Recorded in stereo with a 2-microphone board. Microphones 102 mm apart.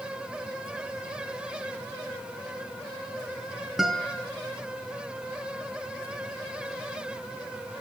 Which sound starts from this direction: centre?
A guitar, at 3.8 s.